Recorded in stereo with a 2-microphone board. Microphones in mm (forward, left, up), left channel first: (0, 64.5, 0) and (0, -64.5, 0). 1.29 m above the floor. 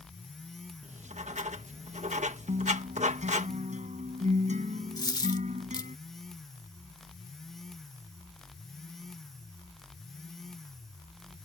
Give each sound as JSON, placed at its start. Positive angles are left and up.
{"t": 0.8, "sound": "writing", "side_deg": -65}
{"t": 2.5, "sound": "a guitar", "side_deg": -65}
{"t": 5.0, "sound": "a dropped coin", "side_deg": 30}